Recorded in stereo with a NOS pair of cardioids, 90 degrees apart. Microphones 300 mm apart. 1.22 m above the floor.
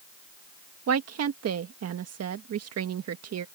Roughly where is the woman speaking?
Ahead right.